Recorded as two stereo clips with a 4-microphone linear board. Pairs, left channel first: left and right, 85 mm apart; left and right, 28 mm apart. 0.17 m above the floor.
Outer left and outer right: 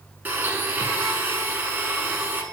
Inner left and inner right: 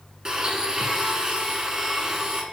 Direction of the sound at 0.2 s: 25° right (ahead or behind).